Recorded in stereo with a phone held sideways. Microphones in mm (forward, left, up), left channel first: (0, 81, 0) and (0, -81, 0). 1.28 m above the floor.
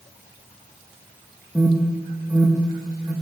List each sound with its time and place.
1.6 s an alarm: 10° right (ahead or behind), 1.8 m